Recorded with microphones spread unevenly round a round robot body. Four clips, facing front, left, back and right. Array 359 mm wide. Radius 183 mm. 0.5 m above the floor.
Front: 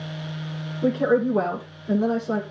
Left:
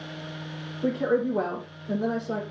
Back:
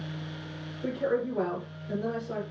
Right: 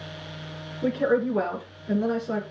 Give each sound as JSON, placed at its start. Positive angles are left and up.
{"t": 0.8, "sound": "a woman speaking", "azimuth_deg": -25, "distance_m": 6.5}